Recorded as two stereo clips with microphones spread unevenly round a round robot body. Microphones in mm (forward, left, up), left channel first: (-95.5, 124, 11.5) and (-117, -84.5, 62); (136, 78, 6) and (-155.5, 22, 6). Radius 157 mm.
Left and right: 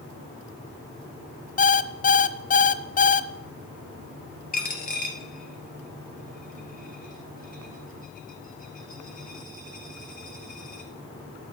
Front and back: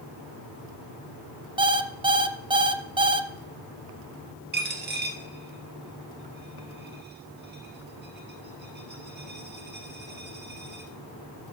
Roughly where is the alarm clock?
Behind left.